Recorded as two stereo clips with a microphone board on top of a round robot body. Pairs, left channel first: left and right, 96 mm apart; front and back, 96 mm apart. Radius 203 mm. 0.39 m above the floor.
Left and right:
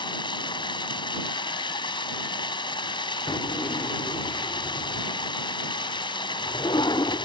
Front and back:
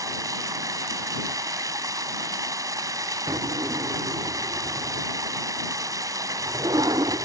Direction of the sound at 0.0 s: 125° left.